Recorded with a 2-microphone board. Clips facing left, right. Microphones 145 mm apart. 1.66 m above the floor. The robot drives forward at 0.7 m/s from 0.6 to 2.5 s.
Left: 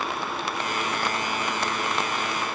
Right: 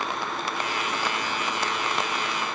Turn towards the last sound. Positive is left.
No sound to turn to.